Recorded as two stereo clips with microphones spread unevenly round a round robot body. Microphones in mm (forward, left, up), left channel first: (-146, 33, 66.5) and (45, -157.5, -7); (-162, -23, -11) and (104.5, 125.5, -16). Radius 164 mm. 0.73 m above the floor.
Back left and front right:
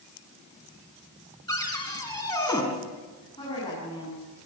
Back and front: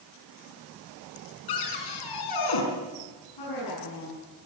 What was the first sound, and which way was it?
A cupboard door, 150° right.